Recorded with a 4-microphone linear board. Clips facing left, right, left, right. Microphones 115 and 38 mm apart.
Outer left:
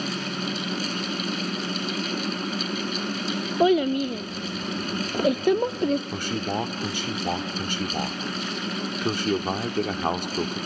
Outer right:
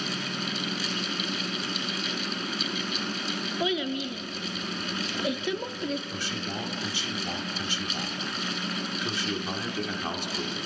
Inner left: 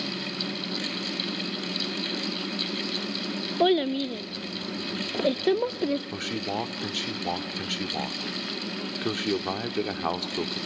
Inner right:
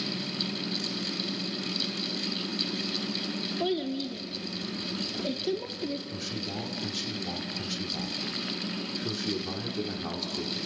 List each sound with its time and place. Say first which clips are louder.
3.6 s a child speaking: outer left 10 dB, inner left 9 dB; 50° left (ahead or behind), 0.5 m
6.1 s a man speaking: outer left 7 dB, inner left 5 dB; 50° left (ahead or behind), 1.3 m